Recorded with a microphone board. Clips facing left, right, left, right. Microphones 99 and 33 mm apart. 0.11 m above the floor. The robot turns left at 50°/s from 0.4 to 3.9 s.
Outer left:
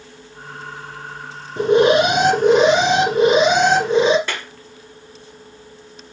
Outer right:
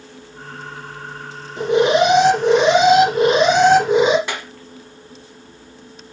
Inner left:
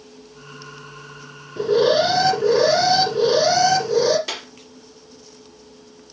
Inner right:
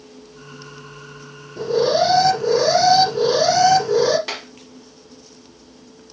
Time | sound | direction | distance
1.6 | an alarm | 95° left | 4 m
4.3 | a clap | 20° right (ahead or behind) | 1.9 m